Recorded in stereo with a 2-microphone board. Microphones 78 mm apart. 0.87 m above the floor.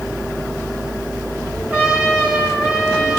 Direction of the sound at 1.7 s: 10° right (ahead or behind).